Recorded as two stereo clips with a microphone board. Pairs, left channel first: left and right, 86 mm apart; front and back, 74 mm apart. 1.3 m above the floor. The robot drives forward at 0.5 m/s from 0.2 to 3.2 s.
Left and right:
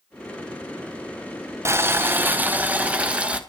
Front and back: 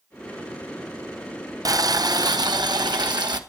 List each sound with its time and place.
1.6 s boiling: 145° right, 0.7 m; by 3.4 s 165° right, 1.4 m